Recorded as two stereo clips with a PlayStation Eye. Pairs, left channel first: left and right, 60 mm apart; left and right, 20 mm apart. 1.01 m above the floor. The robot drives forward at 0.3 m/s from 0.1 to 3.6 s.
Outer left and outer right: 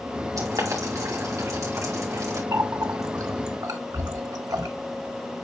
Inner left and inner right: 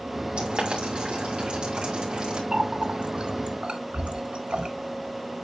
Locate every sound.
0.4 s boiling: 70° right (ahead or behind), 3 m; by 2.4 s 60° right (ahead or behind), 3.5 m
2.5 s a running tap: 70° right (ahead or behind), 1.2 m; by 4.7 s 85° right, 1.1 m